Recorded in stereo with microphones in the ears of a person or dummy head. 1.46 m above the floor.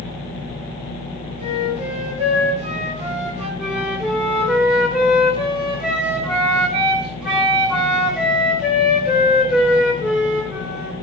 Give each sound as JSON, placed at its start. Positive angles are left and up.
{"t": 1.4, "sound": "a flute", "side_deg": -40, "distance_m": 5.5}
{"t": 3.6, "sound": "a flute", "side_deg": 0, "distance_m": 2.0}